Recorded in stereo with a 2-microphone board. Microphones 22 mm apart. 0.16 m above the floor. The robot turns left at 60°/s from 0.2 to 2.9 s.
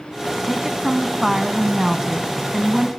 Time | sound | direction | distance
0.4 | a woman speaking | centre (ahead or behind) | 1.4 m